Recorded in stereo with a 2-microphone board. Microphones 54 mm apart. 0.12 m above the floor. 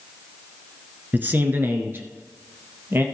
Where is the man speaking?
35° right (ahead or behind), 1.2 m; by 3.0 s 50° right (ahead or behind), 2 m.